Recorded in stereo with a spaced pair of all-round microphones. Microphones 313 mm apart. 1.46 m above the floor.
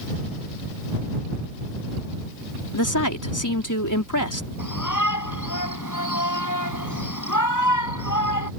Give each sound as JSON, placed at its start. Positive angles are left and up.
{"t": 2.7, "sound": "a woman speaking", "side_deg": 80}
{"t": 4.6, "sound": "a shout", "side_deg": 80}